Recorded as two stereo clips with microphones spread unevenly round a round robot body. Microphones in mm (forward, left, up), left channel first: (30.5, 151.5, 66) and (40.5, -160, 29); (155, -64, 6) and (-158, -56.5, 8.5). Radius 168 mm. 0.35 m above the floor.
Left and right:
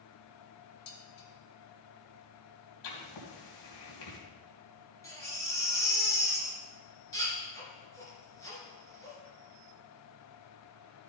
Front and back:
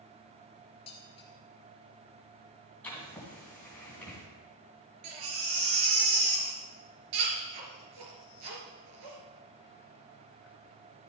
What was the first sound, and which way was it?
Dishes clattering, 75° left.